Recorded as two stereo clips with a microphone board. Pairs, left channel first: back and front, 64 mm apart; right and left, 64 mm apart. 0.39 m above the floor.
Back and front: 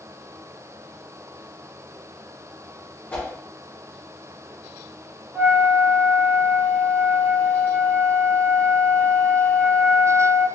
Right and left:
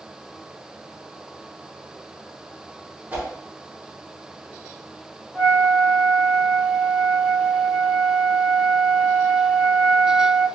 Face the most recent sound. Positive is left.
turn(degrees=65)